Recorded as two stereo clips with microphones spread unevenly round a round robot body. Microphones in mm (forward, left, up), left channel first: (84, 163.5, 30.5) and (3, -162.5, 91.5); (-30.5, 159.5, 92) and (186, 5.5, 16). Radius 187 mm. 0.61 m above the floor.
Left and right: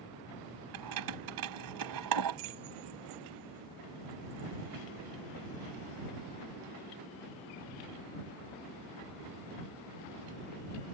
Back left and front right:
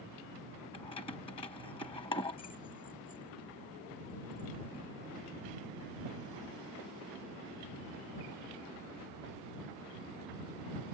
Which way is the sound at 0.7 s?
140° right.